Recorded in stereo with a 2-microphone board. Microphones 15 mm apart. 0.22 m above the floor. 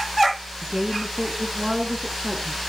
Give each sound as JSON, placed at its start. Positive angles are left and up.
{"t": 0.6, "sound": "a woman speaking", "side_deg": -35, "distance_m": 2.0}